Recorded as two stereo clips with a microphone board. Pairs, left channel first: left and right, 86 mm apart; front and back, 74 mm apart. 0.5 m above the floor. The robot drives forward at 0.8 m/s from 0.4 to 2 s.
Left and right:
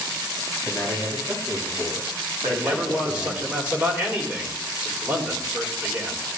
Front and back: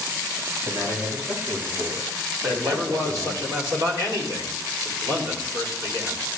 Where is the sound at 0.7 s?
155° right, 4.5 m; by 3.4 s 160° right, 5 m.